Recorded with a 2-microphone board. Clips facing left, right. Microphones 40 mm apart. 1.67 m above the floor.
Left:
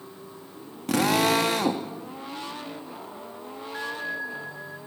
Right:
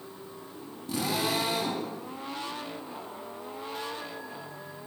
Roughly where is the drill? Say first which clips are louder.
Left 8 dB; left.